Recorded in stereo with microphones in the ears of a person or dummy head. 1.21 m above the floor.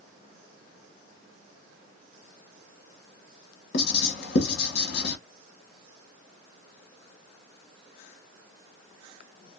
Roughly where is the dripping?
I don't hear dripping.